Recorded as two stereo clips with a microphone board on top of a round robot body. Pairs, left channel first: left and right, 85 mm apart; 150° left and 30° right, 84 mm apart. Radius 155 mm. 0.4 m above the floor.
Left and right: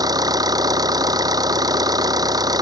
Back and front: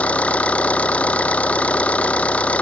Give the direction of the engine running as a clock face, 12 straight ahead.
5 o'clock.